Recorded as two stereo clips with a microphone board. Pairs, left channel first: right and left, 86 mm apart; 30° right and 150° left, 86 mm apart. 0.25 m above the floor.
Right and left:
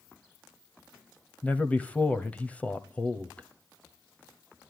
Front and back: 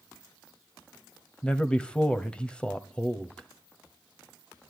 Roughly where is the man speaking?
Right.